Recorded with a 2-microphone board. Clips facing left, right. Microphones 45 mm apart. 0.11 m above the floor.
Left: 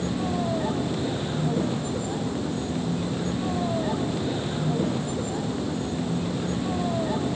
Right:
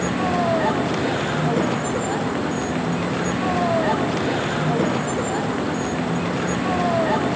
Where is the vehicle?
85° right.